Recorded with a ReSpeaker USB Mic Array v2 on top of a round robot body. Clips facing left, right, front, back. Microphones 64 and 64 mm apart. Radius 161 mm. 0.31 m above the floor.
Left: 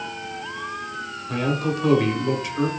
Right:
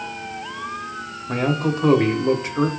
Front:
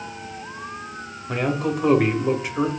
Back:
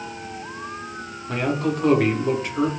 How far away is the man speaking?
About 1.4 m.